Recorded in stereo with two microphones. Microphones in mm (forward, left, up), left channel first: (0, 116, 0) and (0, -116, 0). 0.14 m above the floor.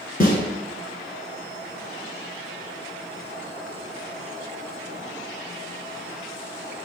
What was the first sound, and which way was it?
A snare drum, 40° left (ahead or behind).